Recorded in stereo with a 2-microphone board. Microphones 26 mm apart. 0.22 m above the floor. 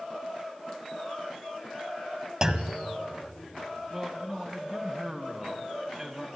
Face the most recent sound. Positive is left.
turn(degrees=-20)  # may be behind; listen again after turning